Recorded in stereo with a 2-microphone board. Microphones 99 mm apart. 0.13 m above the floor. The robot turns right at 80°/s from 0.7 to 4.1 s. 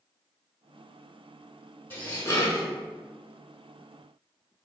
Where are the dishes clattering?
20° left (ahead or behind), 0.9 m; by 2.7 s 30° left (ahead or behind), 0.9 m.